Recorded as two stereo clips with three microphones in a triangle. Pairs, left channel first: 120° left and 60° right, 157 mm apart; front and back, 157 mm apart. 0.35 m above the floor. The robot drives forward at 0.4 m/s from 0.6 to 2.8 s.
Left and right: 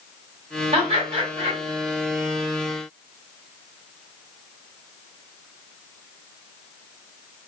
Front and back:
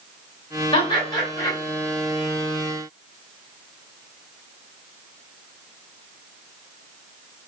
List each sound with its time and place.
0.7 s laughter: 35° right, 1.9 m; by 1.6 s 45° right, 1.7 m